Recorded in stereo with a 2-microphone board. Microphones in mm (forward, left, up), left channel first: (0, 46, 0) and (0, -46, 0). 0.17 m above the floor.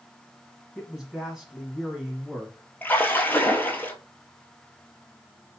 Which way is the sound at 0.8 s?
5° right (ahead or behind).